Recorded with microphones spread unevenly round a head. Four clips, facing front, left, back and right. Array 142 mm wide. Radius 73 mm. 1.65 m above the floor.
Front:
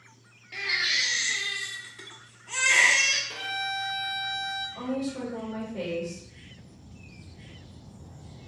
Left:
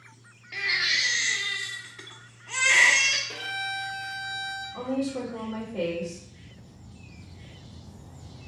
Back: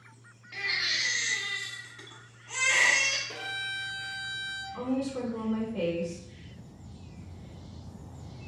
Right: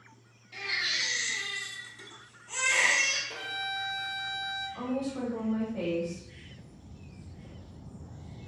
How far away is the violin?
About 1.6 m.